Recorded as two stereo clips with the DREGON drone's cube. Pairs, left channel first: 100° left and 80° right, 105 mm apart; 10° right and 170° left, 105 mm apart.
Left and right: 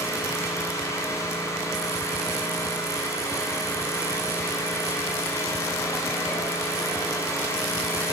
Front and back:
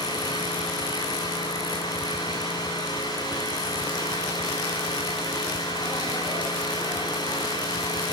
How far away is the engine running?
About 9.5 m.